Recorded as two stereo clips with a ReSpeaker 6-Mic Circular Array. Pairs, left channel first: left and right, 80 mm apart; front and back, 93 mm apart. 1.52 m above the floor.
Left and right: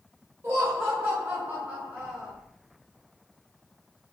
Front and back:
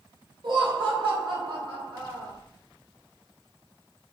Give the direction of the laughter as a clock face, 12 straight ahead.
5 o'clock.